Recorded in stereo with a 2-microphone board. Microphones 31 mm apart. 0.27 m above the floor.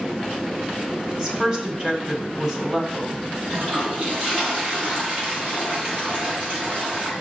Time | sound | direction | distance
1.1 | a woman speaking | 25° right (ahead or behind) | 1.4 m
3.5 | a toilet flushing | 45° right (ahead or behind) | 3 m